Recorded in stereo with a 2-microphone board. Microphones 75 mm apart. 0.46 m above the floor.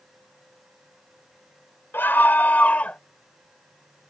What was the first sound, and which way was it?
A scream, 30° left (ahead or behind).